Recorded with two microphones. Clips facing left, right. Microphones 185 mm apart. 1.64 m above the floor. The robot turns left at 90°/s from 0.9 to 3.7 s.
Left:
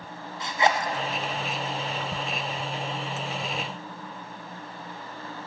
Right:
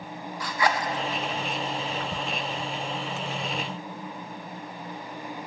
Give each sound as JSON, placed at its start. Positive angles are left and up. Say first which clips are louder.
{"t": 0.4, "sound": "a zipper", "louder": "left 2 dB", "side_deg": 25, "distance_m": 0.6}